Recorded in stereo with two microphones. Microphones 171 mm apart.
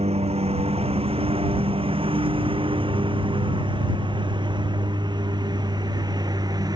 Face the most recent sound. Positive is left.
turn(degrees=-20)  # may be behind; listen again after turning